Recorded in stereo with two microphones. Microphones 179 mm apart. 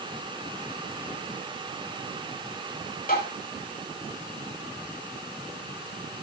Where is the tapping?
55° left (ahead or behind), 7 m.